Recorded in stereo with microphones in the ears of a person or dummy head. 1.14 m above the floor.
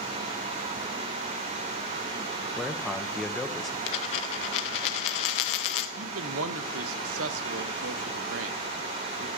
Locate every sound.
2.6 s a man speaking: 5° left (ahead or behind), 0.7 m
3.9 s a dropped coin: 30° left (ahead or behind), 0.6 m
6.0 s a man speaking: 85° right, 0.8 m